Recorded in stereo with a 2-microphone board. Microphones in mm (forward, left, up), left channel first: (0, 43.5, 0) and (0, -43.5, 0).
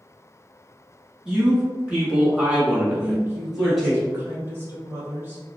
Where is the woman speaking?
30° right (ahead or behind), 1.2 m.